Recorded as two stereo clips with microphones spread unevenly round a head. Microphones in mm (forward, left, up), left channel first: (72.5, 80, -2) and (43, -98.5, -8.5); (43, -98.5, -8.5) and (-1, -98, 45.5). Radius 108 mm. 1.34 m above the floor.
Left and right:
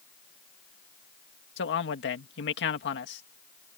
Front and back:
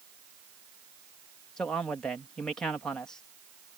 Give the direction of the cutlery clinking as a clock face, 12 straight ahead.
No cutlery clinking in this recording.